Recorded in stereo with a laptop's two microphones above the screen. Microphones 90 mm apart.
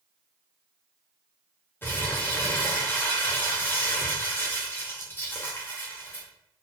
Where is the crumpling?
25° left (ahead or behind), 0.6 m.